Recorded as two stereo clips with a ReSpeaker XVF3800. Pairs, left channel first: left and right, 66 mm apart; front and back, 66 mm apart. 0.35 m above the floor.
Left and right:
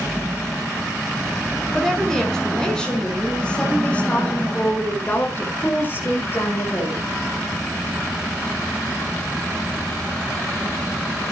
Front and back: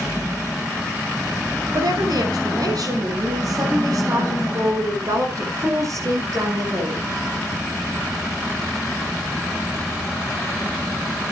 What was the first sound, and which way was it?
A woman speaking, 175° left.